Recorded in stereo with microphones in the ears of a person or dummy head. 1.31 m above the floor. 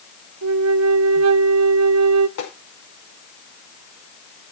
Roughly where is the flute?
Right.